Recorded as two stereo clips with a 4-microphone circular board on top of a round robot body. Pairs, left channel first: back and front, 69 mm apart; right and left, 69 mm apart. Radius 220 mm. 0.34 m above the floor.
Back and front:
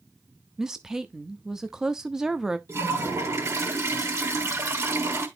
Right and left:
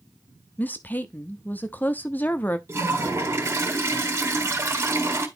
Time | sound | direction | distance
0.6 | a woman speaking | 75° right | 0.9 m
2.7 | a toilet flushing | 40° left | 3 m